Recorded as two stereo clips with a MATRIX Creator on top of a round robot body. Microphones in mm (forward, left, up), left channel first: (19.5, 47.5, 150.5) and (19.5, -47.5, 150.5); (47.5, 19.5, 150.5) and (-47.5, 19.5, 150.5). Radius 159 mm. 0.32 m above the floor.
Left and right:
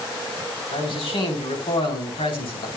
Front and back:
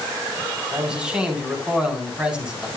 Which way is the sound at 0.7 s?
100° left.